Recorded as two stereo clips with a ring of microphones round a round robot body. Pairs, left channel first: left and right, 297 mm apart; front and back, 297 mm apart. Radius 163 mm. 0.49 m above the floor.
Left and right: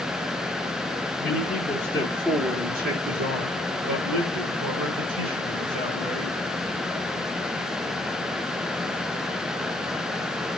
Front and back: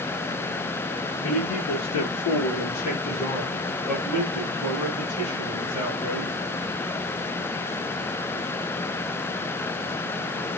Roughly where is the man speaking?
Ahead left.